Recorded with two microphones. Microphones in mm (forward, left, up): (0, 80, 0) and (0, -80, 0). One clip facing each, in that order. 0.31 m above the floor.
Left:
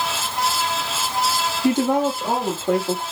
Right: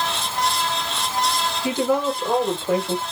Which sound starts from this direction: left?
A woman speaking, at 1.6 s.